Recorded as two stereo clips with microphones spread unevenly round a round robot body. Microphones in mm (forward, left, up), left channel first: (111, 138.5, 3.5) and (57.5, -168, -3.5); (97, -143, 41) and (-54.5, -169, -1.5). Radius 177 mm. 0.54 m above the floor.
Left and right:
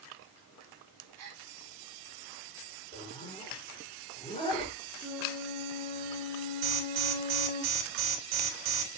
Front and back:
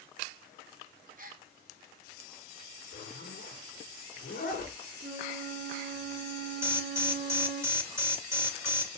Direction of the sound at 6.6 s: 105° right.